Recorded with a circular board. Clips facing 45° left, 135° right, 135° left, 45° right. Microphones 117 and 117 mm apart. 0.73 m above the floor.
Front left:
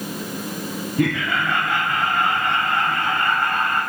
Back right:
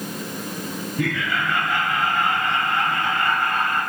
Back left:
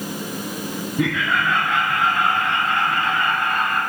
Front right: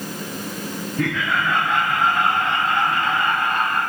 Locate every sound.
1.0 s laughter: 65° left, 0.9 m; by 3.8 s 20° left, 4.5 m